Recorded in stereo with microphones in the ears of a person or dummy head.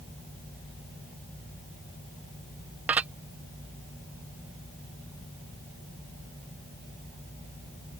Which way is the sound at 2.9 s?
5° right (ahead or behind).